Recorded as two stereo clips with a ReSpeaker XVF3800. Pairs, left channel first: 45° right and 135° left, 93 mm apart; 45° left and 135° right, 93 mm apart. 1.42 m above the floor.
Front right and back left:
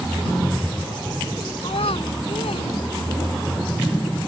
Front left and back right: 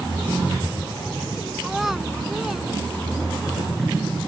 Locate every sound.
1.6 s a child speaking: 50° right